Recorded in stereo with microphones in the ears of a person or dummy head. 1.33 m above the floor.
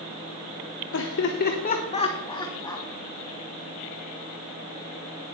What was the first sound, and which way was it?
Laughter, 75° left (ahead or behind).